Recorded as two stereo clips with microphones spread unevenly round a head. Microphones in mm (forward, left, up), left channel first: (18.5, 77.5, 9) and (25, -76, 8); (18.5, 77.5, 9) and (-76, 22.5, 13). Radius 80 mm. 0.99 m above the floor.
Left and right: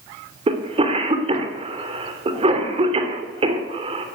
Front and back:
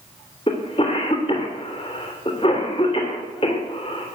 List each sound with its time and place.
0.5 s a cough: 35° right, 2.5 m